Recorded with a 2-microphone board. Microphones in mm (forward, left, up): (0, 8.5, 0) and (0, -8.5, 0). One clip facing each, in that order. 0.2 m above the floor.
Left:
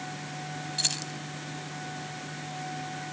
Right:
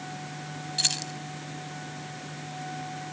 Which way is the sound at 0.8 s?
10° right (ahead or behind).